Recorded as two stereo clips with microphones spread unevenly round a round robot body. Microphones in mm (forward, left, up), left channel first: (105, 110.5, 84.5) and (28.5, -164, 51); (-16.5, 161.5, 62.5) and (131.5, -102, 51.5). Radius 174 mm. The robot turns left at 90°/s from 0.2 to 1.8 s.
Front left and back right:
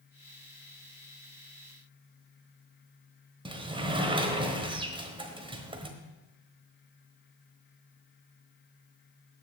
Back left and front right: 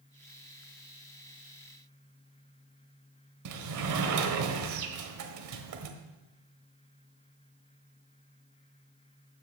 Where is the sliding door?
30° right, 1.3 m.